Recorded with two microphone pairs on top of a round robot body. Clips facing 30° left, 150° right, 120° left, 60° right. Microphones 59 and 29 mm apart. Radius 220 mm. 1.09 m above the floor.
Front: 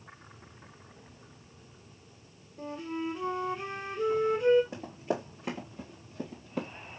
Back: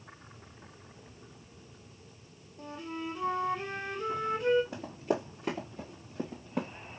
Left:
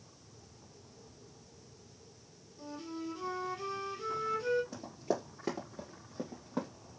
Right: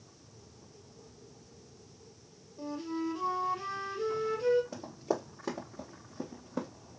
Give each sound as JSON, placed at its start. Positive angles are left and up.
{"t": 2.6, "sound": "a flute", "azimuth_deg": 15, "distance_m": 1.0}
{"t": 4.7, "sound": "running footsteps", "azimuth_deg": 35, "distance_m": 1.2}